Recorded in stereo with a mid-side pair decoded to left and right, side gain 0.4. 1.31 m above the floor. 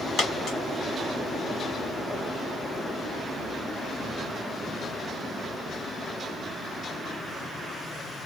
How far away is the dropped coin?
About 2.0 m.